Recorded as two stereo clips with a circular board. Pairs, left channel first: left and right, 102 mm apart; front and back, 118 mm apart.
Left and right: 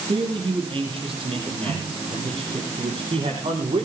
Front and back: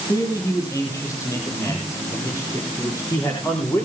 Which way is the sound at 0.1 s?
60° right.